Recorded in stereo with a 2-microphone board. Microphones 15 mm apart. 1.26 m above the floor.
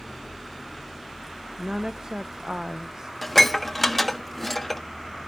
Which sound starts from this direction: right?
A woman speaking, at 1.6 s.